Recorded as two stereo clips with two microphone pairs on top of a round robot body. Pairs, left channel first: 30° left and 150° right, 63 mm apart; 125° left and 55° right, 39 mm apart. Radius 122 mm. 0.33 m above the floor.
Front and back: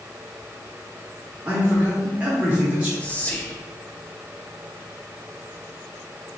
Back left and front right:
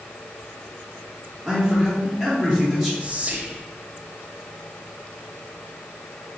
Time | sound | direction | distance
1.4 | a man speaking | 135° right | 1.5 m
3.0 | whispering | 50° right | 0.9 m